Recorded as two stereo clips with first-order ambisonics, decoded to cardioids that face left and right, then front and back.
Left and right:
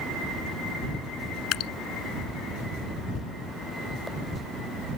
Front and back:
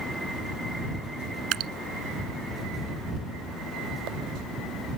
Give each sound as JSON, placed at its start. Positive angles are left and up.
{"t": 1.5, "sound": "dripping", "azimuth_deg": 135}